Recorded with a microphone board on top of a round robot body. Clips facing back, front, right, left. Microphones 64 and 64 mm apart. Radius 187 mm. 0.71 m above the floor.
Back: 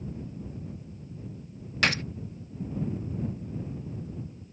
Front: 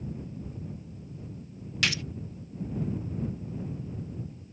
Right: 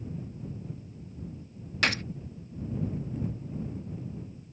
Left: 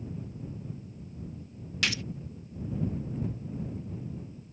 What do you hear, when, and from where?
1.8 s a gunshot: 135° right